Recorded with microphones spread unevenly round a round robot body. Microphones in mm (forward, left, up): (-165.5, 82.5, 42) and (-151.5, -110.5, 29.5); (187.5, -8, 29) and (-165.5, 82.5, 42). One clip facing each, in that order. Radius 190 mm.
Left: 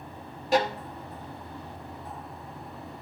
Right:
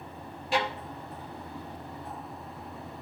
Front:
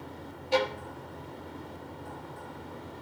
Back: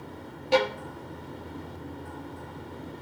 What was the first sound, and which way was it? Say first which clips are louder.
A violin: left 5 dB, back 4 dB; 150° left.